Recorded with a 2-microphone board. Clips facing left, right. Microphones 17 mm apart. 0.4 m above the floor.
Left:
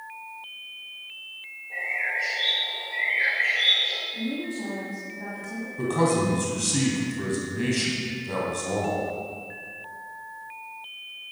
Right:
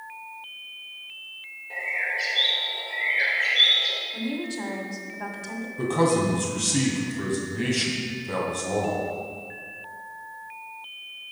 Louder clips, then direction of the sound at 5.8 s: Right 1 dB; centre (ahead or behind).